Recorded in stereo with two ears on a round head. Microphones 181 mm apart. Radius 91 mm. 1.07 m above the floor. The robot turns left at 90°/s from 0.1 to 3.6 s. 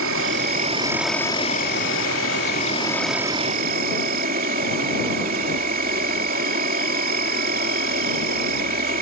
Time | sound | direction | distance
0.0 | an insect | 90° right | ?